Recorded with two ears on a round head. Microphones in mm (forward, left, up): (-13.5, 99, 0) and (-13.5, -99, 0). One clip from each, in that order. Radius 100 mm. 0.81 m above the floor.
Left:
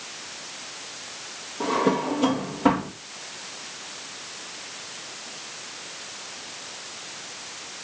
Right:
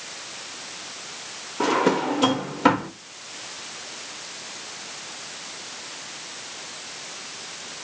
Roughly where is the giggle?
No giggle in this recording.